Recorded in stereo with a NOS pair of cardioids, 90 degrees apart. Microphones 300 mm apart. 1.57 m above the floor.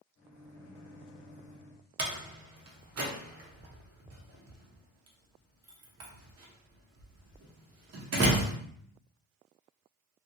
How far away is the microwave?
About 1.1 m.